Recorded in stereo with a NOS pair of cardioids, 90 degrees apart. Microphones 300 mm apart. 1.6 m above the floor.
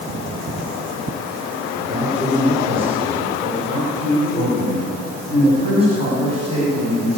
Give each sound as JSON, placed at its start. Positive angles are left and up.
{"t": 1.9, "sound": "a man speaking", "azimuth_deg": -20, "distance_m": 6.5}